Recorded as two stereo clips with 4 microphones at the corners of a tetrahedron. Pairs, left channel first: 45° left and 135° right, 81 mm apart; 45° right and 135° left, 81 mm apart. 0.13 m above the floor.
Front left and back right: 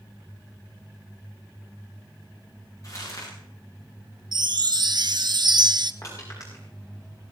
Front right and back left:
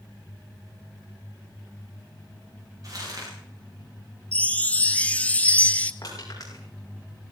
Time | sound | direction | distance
2.8 | crumpling | 95° left | 9.5 m
4.3 | a chime | 115° right | 0.8 m
6.0 | crushing | straight ahead | 7.5 m